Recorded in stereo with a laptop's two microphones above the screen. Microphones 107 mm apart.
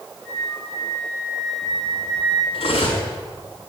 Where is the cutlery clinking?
70° left (ahead or behind), 5 m.